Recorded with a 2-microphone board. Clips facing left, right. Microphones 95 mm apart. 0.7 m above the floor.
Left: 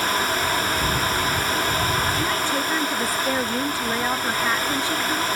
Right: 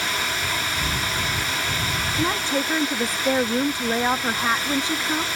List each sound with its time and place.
2.1 s a woman speaking: 25° right (ahead or behind)